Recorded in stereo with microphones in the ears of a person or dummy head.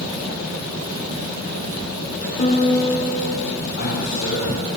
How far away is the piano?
About 4 m.